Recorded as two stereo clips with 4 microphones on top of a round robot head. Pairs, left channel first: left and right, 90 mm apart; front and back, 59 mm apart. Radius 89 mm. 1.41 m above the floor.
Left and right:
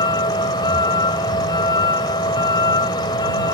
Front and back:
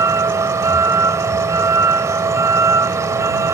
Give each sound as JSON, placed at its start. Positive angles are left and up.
{"t": 0.0, "sound": "a vehicle", "azimuth_deg": 145}